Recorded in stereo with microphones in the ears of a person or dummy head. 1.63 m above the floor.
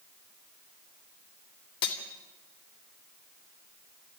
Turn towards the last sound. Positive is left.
turn(degrees=60)  # may be behind; listen again after turning